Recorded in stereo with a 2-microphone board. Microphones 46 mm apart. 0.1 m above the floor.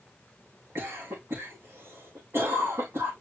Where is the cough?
70° right (ahead or behind), 6.5 m.